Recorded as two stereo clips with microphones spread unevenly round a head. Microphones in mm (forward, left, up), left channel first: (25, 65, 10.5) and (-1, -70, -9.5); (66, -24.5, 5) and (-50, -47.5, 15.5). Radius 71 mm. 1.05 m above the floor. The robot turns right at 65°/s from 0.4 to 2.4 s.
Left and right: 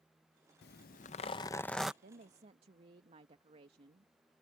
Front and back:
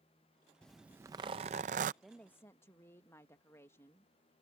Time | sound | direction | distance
0.6 | a zipper | 90° left | ?
2.0 | a woman speaking | 80° right | ?